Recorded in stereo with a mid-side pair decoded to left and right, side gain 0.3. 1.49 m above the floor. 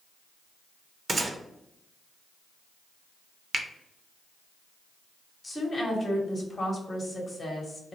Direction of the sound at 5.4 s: 45° left.